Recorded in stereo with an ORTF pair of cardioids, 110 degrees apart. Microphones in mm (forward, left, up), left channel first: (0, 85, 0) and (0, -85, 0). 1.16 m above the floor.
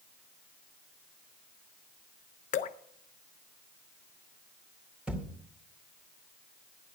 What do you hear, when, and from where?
2.5 s dripping: 50° left, 0.8 m
5.1 s a thud: 5° right, 2.0 m